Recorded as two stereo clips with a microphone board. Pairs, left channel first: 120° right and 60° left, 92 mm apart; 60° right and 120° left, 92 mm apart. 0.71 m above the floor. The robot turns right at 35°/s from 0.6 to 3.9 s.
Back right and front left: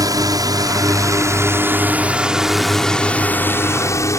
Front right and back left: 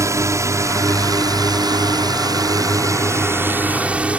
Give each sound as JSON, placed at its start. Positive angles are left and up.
{"t": 0.0, "sound": "a drone", "azimuth_deg": 85}